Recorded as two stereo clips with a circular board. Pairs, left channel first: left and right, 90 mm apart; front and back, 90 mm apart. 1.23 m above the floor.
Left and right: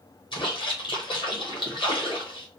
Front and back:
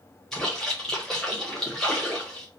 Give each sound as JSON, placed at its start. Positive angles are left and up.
{"t": 0.3, "sound": "a splash", "azimuth_deg": 85, "distance_m": 0.9}